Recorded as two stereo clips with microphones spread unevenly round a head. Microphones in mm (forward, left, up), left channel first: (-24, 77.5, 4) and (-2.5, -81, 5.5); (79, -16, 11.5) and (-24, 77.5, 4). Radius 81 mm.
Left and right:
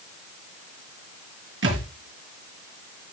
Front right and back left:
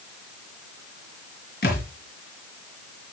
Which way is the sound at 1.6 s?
70° right.